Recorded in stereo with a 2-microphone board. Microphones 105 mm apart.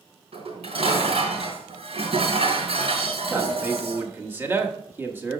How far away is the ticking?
No ticking in this recording.